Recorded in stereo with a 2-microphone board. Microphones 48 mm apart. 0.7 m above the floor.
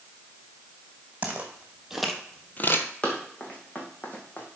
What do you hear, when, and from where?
1.2 s footsteps: 30° right (ahead or behind), 2 m; by 2.9 s 55° left (ahead or behind), 1.2 m
3.0 s running footsteps: 25° left (ahead or behind), 2.5 m; by 4.5 s 35° left (ahead or behind), 2 m